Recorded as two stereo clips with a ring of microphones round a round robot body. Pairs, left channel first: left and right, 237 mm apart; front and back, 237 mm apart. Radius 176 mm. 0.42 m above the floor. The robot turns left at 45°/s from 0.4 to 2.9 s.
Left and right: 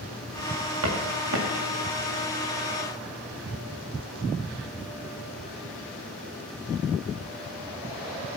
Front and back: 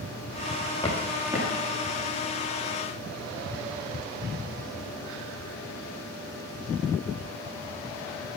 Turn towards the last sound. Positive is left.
turn(degrees=-170)